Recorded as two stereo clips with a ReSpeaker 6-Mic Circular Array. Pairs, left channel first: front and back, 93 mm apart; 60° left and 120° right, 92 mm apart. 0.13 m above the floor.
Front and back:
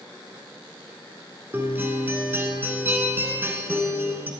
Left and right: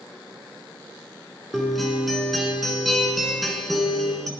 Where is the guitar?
150° left, 1.5 m.